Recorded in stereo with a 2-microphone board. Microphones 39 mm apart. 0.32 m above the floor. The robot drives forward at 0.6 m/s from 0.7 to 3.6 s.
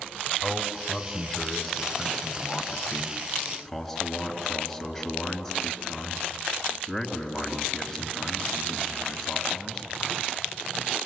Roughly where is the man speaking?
Centre.